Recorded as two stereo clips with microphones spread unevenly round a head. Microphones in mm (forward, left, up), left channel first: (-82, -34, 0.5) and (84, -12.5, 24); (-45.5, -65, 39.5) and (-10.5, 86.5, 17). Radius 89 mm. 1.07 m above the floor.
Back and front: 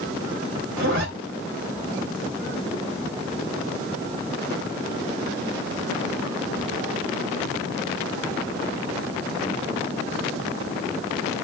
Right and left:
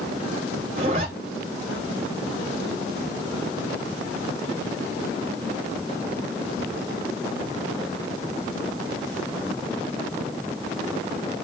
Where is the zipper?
20° left, 3 m.